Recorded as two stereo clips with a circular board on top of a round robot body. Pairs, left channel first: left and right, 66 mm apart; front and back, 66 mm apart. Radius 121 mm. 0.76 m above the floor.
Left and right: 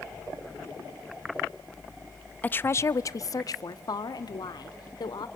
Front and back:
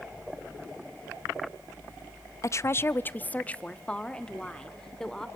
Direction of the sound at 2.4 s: 25° left.